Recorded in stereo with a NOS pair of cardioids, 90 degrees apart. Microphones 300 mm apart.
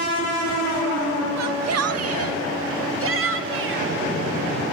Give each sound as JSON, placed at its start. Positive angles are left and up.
{"t": 1.4, "sound": "a shout", "azimuth_deg": -60, "distance_m": 1.8}